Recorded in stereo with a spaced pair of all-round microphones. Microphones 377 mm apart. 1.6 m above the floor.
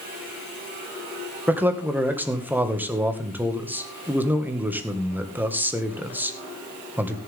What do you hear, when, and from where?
1.5 s a man speaking: 5° right (ahead or behind), 1.8 m